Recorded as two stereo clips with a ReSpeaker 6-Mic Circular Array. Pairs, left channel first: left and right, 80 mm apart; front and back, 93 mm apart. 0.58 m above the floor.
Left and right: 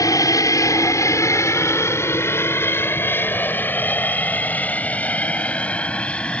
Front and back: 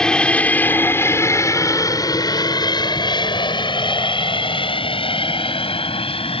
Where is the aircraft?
80° left; by 6.4 s 15° left.